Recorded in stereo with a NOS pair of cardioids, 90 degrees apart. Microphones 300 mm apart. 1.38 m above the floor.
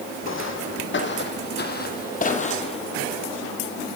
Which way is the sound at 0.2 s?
45° left.